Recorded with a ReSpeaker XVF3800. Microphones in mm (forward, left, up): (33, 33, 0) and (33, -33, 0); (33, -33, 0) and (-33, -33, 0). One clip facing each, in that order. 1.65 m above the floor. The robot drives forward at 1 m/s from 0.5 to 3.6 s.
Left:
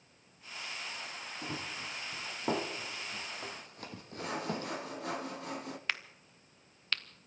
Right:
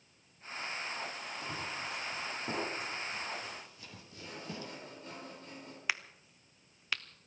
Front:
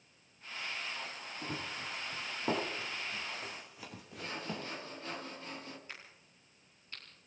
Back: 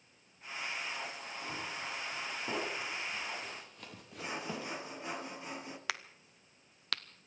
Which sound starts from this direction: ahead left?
Running footsteps, at 1.4 s.